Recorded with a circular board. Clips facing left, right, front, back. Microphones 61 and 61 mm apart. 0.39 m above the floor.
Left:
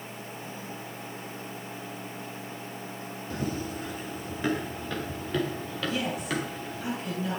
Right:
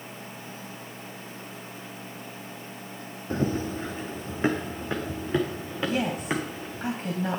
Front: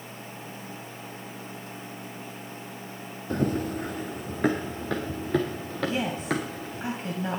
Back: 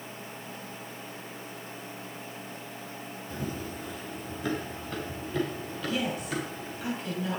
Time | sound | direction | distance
3.3 | running footsteps | 35° right | 1.2 m
5.8 | a woman speaking | 50° right | 3 m